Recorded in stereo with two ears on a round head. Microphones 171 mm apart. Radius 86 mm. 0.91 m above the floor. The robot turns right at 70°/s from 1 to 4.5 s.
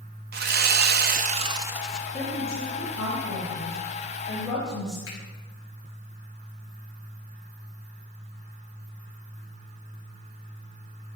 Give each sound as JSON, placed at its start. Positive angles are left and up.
{"t": 0.3, "sound": "sawing", "azimuth_deg": -65, "distance_m": 0.6}
{"t": 2.1, "sound": "a woman speaking", "azimuth_deg": 10, "distance_m": 4.0}
{"t": 5.1, "sound": "a finger snap", "side_deg": 70, "distance_m": 5.5}